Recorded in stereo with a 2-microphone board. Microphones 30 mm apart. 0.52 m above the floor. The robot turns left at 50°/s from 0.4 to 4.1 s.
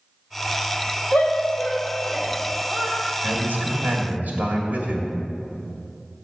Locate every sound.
1.1 s a shout: 60° left (ahead or behind), 2.0 m; by 3.0 s 25° right (ahead or behind), 2.0 m
3.2 s a man speaking: 60° right, 1.8 m; by 5.1 s 105° right, 1.8 m